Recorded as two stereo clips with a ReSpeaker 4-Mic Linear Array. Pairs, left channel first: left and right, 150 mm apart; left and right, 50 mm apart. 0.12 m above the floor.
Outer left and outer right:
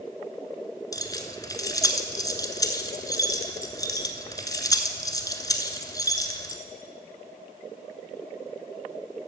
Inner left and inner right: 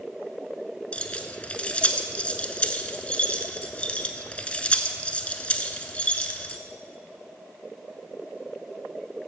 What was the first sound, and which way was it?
Keys jangling, 25° left (ahead or behind).